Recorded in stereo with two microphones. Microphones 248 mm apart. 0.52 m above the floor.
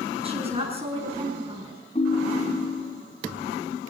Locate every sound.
0.2 s a woman speaking: 25° right (ahead or behind), 6.5 m
1.9 s a ringtone: 25° left (ahead or behind), 1.9 m